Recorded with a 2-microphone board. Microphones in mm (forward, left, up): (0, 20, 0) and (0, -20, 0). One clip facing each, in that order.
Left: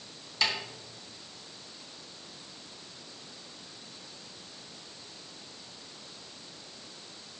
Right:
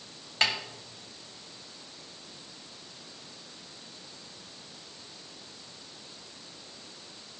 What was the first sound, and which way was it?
A snare drum, 50° right (ahead or behind).